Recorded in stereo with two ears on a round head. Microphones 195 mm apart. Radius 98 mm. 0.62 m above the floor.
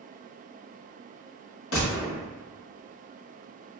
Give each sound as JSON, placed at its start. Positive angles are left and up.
{"t": 1.7, "sound": "a gunshot", "side_deg": 70, "distance_m": 1.6}